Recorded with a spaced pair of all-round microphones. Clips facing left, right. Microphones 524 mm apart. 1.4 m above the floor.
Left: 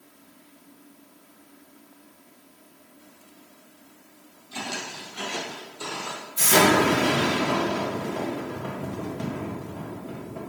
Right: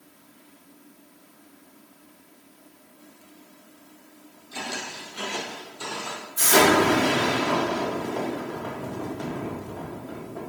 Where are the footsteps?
20° left (ahead or behind), 1.6 m; by 6.3 s 15° right (ahead or behind), 1.8 m.